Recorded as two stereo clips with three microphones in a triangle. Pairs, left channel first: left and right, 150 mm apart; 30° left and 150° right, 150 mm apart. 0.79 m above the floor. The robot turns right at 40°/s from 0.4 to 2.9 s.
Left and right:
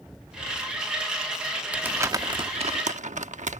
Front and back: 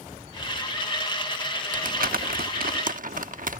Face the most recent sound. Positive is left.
turn(degrees=-125)